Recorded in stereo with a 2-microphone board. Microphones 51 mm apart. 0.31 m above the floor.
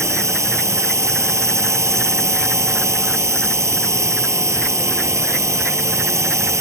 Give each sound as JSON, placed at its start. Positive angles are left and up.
{"t": 0.0, "sound": "a drone", "side_deg": -75}